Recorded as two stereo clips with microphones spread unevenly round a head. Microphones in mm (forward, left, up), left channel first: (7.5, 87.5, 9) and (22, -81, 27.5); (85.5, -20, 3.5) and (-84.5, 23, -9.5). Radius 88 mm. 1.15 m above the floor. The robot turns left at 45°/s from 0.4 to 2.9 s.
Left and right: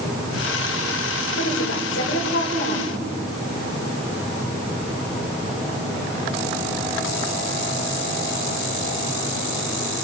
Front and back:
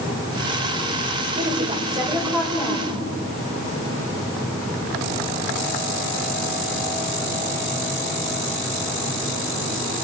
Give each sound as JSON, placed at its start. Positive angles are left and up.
{"t": 1.4, "sound": "a woman speaking", "azimuth_deg": 125, "distance_m": 5.0}